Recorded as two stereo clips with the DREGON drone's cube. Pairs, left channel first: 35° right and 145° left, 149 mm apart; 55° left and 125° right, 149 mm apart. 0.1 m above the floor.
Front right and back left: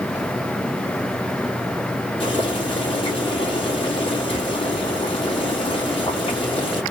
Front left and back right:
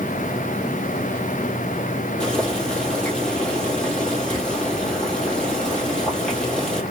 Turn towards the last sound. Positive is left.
turn(degrees=-25)